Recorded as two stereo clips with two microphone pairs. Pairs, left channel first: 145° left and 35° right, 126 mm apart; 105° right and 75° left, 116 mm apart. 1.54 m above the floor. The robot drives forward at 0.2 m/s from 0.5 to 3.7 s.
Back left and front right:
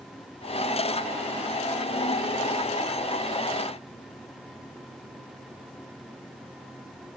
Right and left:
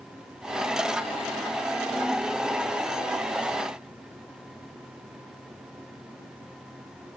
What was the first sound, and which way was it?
Only background noise.